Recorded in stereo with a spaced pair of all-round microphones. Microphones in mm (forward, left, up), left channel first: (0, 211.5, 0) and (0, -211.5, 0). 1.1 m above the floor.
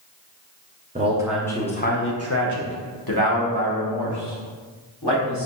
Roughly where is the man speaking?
Centre.